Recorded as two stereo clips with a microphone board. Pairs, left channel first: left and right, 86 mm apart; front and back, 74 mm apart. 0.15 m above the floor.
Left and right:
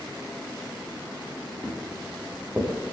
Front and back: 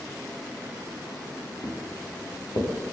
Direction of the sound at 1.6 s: 15° right.